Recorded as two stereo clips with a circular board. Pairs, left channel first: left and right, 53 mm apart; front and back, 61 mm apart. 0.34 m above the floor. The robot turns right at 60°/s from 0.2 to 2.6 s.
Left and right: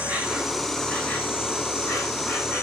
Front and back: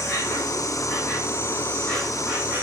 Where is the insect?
20° right, 5 m; by 2.6 s 120° left, 5 m.